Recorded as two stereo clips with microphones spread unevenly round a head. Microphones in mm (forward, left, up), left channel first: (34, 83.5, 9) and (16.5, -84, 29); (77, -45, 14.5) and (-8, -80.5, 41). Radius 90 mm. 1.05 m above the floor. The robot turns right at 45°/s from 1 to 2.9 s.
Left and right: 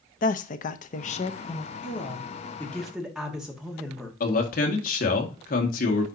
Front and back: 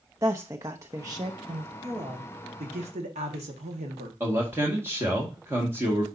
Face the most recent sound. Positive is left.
turn(degrees=125)